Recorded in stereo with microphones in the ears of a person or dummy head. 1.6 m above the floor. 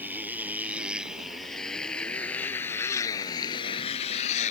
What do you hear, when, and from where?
0.0 s a motorcycle: 5° right (ahead or behind); by 4.5 s 50° left (ahead or behind)